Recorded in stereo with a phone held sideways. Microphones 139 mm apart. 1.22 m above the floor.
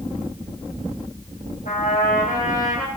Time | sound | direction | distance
1.6 | a trumpet | 85° left | 4.5 m